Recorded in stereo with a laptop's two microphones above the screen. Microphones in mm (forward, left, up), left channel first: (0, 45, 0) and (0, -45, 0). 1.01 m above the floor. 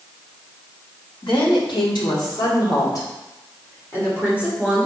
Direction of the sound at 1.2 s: 85° left.